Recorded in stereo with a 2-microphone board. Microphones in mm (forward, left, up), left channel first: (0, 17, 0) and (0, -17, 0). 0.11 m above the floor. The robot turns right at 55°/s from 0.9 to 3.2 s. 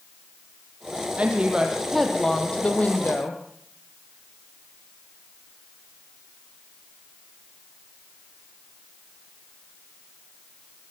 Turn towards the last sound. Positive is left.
turn(degrees=70)